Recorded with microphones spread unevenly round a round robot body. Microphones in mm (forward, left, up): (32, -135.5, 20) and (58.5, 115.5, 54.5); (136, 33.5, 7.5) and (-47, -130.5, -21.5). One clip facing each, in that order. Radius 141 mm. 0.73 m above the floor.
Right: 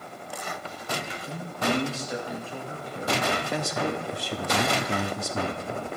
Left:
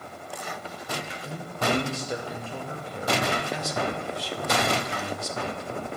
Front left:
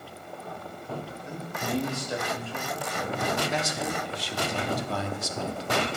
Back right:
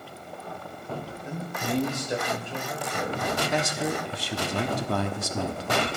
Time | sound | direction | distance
1.2 | a man speaking | 150° left | 2.5 m
3.5 | a man speaking | 120° right | 1.1 m